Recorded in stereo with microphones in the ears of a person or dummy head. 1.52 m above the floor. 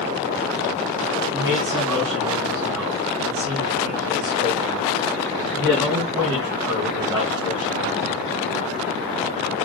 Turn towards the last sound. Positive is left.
turn(degrees=-5)  # may be behind; listen again after turning